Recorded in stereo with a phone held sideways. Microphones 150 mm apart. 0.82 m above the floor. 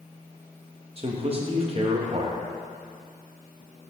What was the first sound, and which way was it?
A man speaking, 40° right (ahead or behind).